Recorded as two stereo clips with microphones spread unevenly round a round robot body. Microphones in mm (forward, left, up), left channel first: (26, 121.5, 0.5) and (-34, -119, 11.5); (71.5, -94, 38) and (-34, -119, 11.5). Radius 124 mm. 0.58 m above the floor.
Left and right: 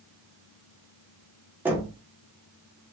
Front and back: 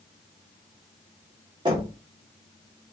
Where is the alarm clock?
I don't hear an alarm clock.